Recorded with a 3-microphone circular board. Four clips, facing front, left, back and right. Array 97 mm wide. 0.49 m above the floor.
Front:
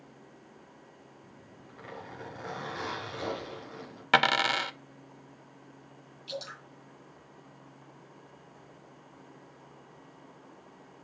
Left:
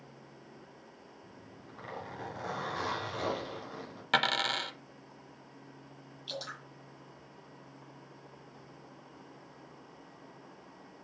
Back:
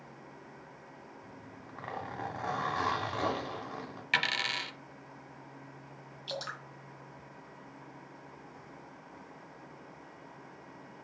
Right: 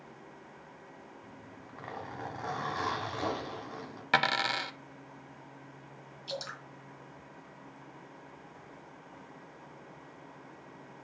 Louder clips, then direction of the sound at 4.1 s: Right 2 dB, front 9 dB; 10° right.